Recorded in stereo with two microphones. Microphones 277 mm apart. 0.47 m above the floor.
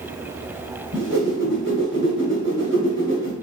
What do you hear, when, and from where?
0.9 s a whoosh: 40° right (ahead or behind), 1.1 m